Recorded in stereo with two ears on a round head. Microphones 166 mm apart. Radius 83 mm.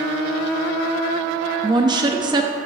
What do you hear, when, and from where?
1.6 s a woman speaking: 20° right (ahead or behind), 0.9 m